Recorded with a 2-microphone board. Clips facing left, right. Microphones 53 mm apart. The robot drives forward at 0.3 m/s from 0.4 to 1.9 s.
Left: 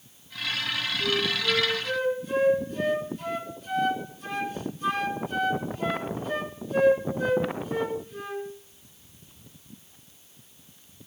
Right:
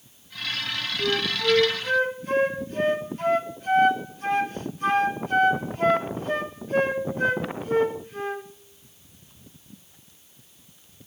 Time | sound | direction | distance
1.0 | a flute | 60° right (ahead or behind) | 1.2 m